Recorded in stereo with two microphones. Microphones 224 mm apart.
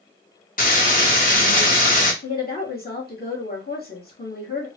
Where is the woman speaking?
45° left (ahead or behind), 1.5 m.